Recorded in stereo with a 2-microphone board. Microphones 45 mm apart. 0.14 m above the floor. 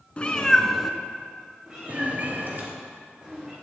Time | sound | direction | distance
0.2 | a cat meowing | 30° left (ahead or behind) | 0.9 m
1.7 | a cat meowing | 15° right (ahead or behind) | 3 m